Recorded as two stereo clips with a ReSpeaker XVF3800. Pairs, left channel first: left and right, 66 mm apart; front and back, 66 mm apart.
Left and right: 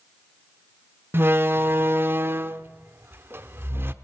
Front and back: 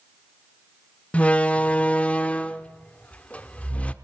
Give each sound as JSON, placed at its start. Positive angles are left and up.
{"t": 1.1, "sound": "a door slam", "azimuth_deg": -60, "distance_m": 0.8}